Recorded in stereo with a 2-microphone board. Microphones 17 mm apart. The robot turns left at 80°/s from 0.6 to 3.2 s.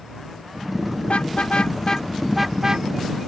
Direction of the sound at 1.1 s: 85° left.